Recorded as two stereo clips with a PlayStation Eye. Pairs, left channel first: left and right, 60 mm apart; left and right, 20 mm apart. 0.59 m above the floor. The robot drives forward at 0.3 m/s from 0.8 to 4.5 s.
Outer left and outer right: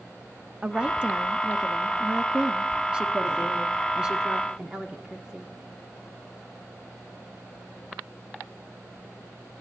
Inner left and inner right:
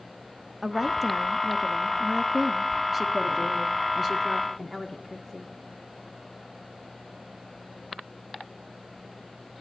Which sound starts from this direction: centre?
A woman speaking, at 0.6 s.